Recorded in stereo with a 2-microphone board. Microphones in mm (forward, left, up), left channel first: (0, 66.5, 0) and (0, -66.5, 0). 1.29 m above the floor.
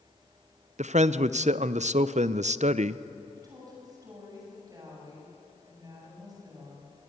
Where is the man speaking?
60° right (ahead or behind), 0.5 m.